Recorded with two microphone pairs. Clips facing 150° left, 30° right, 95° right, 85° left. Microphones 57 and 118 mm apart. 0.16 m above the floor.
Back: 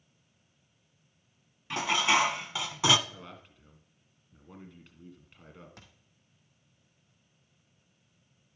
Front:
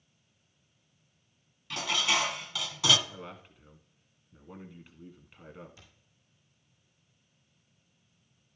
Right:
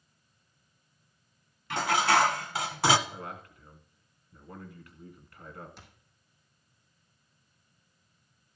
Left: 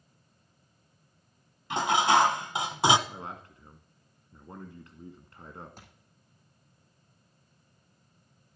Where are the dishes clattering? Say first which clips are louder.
Back 4 dB, left 2 dB; 125° left, 0.8 m.